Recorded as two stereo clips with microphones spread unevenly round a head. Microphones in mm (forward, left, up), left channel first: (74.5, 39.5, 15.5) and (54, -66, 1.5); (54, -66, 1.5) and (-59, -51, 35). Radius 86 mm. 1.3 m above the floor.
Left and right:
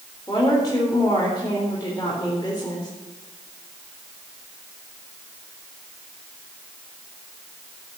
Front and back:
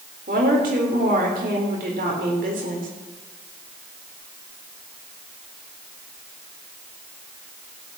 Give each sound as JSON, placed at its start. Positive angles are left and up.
{"t": 0.3, "sound": "a woman speaking", "azimuth_deg": 150, "distance_m": 3.5}